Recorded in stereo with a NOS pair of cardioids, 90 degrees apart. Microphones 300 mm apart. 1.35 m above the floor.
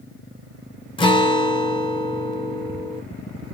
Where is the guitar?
15° left, 0.7 m.